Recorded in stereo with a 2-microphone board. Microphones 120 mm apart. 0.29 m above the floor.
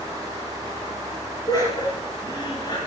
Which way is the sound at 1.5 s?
35° left (ahead or behind).